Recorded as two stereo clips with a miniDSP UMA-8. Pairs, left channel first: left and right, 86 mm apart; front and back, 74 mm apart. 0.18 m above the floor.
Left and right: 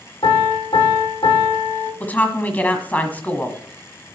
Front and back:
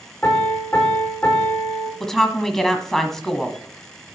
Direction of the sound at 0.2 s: 75° left.